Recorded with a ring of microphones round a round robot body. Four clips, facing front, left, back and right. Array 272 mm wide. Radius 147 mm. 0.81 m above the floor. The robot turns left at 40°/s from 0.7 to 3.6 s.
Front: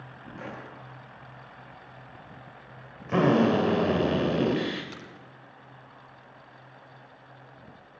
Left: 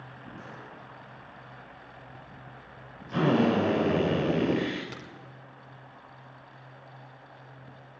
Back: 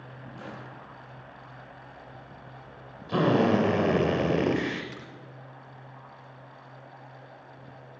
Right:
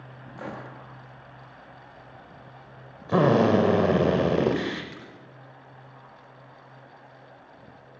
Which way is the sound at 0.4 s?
75° right.